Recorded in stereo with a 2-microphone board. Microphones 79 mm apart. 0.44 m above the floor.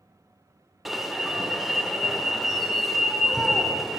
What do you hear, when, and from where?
0.8 s an alarm: centre (ahead or behind), 1.0 m